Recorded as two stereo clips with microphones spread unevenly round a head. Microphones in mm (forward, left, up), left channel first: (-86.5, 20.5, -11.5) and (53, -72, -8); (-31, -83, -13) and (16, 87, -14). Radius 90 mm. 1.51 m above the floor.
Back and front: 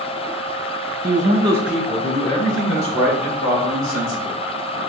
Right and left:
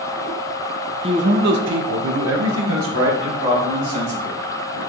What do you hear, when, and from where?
1.0 s a man speaking: 10° left, 0.6 m; by 4.8 s 105° left, 2 m